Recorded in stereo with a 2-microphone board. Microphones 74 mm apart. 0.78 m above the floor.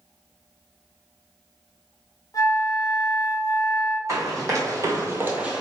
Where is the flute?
50° left (ahead or behind), 0.7 m.